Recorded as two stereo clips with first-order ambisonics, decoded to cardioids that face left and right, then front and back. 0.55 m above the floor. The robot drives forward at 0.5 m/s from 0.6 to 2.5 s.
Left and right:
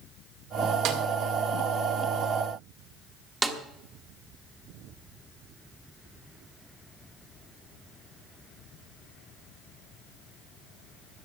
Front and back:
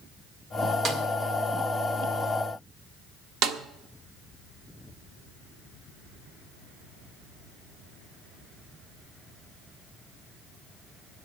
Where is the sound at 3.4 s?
165° right, 1.1 m.